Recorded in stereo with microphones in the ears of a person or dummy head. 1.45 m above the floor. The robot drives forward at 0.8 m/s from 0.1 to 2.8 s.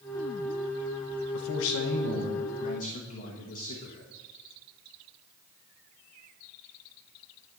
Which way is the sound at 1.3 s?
70° left (ahead or behind).